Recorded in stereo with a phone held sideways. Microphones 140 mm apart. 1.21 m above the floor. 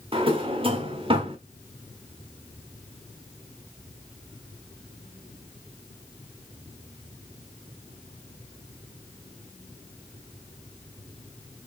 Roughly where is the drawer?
Right.